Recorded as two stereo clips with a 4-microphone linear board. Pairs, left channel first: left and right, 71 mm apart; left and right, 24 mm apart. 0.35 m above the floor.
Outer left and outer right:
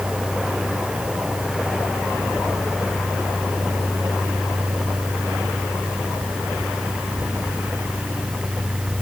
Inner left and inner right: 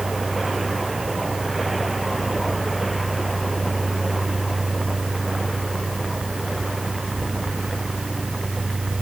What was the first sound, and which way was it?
Only background noise.